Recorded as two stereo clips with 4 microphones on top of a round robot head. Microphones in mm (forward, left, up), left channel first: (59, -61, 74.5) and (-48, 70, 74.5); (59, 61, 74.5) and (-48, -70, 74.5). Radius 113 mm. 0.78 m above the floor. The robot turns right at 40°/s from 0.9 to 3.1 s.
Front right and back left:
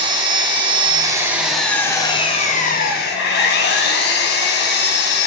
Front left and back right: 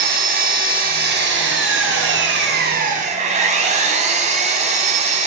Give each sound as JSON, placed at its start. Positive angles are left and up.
{"t": 0.0, "sound": "an engine running", "azimuth_deg": -165, "distance_m": 3.0}